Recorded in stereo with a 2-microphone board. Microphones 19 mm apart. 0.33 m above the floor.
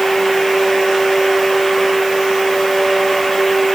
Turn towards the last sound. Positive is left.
No sound to turn to.